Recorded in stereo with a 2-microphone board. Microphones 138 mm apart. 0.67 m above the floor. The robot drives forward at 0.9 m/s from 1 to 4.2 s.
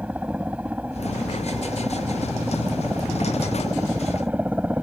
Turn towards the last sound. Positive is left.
turn(degrees=-10)  # may be behind; listen again after turning